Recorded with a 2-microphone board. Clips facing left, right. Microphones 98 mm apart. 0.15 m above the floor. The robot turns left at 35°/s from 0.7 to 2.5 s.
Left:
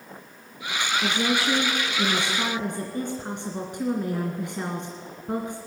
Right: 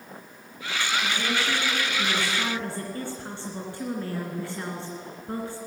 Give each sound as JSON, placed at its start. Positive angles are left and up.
{"t": 1.0, "sound": "a woman speaking", "azimuth_deg": 75, "distance_m": 2.5}